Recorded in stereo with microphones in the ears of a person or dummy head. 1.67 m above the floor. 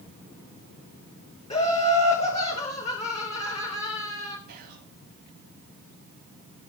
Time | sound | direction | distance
1.5 | laughter | 30° left (ahead or behind) | 0.9 m
4.5 | whispering | 60° right (ahead or behind) | 2.5 m